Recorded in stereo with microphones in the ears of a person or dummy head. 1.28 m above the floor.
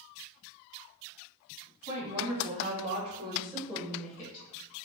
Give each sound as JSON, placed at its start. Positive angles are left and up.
{"t": 1.9, "sound": "a woman speaking", "side_deg": -80, "distance_m": 1.6}